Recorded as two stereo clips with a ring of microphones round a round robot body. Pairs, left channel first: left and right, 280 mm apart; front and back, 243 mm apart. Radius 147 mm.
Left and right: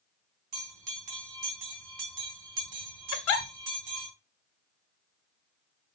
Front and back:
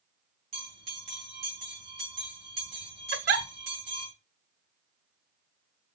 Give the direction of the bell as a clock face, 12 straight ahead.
4 o'clock.